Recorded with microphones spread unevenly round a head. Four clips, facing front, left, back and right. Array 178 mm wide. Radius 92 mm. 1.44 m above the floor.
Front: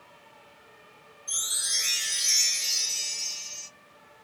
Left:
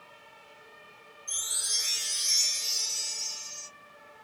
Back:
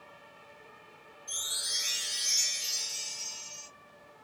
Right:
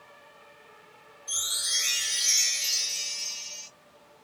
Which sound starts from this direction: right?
A chime, at 1.3 s.